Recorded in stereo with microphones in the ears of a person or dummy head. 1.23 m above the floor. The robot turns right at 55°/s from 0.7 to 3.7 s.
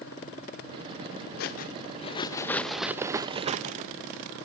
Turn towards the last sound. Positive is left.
turn(degrees=-130)